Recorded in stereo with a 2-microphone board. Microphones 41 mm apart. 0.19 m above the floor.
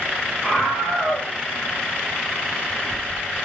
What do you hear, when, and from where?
0.4 s a scream: 10° left (ahead or behind), 7.5 m